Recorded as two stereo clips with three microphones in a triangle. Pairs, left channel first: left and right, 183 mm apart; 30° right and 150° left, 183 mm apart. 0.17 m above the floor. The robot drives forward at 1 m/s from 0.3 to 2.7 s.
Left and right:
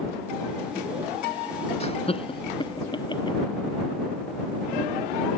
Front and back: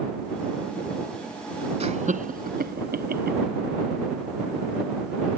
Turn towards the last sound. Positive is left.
turn(degrees=150)